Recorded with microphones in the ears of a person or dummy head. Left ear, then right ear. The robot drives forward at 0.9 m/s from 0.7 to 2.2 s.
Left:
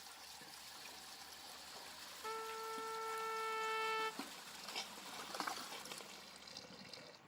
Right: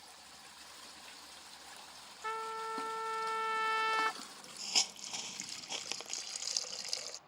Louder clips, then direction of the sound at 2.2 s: Right 7 dB; 55° right (ahead or behind).